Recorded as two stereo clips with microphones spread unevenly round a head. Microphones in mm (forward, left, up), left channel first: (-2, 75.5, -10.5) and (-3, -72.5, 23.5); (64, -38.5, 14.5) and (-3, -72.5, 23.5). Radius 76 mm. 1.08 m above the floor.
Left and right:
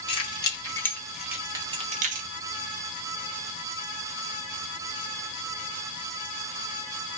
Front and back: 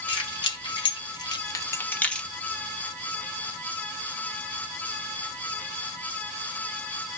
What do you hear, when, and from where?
0.1 s keys jangling: 30° left, 1.1 m; by 2.3 s 55° right, 0.7 m